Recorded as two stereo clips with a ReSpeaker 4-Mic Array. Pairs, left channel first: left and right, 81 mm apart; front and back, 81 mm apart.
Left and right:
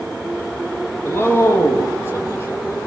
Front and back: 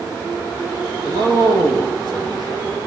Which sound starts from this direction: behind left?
A man speaking, at 1.1 s.